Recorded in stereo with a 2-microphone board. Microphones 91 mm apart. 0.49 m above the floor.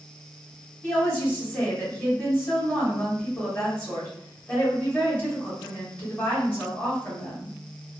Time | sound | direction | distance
0.8 | a woman speaking | 20° left (ahead or behind) | 1.4 m